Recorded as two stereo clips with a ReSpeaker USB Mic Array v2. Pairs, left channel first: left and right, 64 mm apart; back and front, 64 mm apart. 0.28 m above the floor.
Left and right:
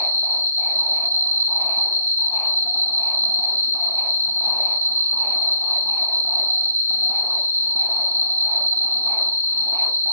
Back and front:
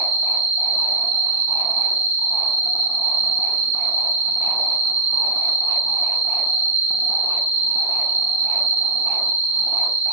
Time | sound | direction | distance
0.0 | an insect | 55° left | 0.9 m